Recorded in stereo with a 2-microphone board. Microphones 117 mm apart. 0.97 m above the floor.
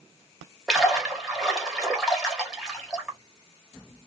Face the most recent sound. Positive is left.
turn(degrees=0)  # may be behind; listen again after turning